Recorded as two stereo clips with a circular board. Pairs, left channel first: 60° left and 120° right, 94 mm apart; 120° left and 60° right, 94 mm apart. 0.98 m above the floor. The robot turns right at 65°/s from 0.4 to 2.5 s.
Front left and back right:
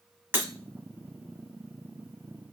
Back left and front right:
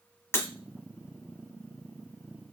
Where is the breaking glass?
175° left, 0.9 m; by 0.5 s straight behind, 0.9 m.